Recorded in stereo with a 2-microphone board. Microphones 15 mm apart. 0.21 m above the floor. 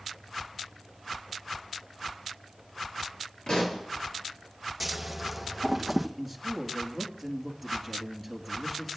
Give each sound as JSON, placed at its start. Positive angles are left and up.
{"t": 3.5, "sound": "a pop", "side_deg": 50, "distance_m": 4.0}
{"t": 4.8, "sound": "scissors", "side_deg": 0, "distance_m": 1.6}
{"t": 6.2, "sound": "a man speaking", "side_deg": 10, "distance_m": 3.5}